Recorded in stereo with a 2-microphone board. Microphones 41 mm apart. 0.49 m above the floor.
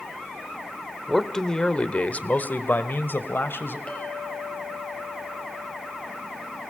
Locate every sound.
1.1 s a man speaking: 5° left (ahead or behind), 1.3 m; by 3.8 s 70° left (ahead or behind), 2 m
3.9 s a clink: 40° left (ahead or behind), 6.5 m